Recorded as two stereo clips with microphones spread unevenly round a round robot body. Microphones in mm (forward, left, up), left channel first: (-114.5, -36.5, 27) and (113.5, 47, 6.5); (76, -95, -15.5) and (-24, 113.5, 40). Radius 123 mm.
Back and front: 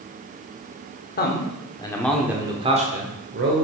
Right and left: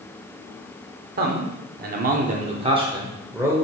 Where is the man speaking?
165° left, 1.4 m; by 3.6 s 25° left, 1.8 m.